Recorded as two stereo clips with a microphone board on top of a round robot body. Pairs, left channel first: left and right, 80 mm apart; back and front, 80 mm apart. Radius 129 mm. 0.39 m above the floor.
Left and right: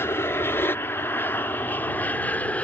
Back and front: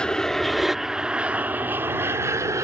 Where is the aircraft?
110° left; by 2.6 s 25° left.